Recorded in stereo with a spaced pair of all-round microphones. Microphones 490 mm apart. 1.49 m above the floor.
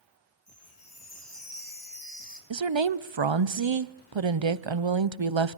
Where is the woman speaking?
65° right (ahead or behind), 0.7 m.